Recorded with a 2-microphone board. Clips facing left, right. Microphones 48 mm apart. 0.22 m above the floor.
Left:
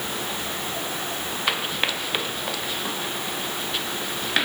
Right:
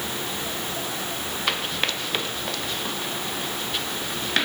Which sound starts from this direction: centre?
Running footsteps, at 1.5 s.